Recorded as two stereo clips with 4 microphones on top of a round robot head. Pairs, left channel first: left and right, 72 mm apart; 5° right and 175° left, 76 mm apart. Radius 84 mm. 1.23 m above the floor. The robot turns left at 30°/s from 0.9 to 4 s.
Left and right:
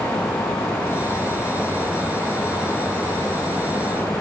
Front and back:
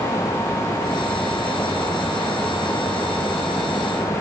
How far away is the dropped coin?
No dropped coin in this recording.